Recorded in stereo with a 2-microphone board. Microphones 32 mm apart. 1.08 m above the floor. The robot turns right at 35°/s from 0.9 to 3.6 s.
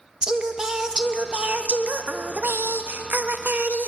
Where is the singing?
160° right, 0.5 m; by 3.9 s 65° right, 0.5 m.